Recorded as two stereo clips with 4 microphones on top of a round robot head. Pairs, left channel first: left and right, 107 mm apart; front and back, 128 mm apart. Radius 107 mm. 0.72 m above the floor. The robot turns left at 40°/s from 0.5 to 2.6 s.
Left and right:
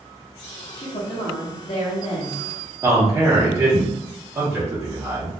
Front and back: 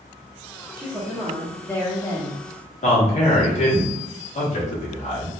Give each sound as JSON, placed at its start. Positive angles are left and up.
{"t": 0.8, "sound": "a woman speaking", "azimuth_deg": 110, "distance_m": 1.4}
{"t": 2.8, "sound": "a man speaking", "azimuth_deg": -25, "distance_m": 1.6}